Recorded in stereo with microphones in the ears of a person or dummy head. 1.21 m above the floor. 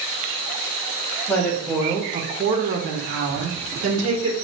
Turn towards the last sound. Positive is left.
turn(degrees=-85)